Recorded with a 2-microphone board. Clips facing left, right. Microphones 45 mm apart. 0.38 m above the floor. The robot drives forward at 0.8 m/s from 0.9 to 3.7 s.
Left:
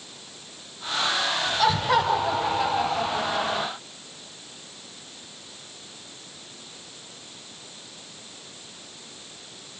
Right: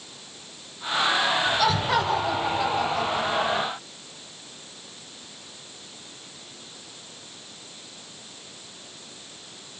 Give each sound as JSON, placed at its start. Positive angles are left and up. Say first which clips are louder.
{"t": 1.6, "sound": "laughter", "louder": "left 1 dB", "side_deg": 5, "distance_m": 2.5}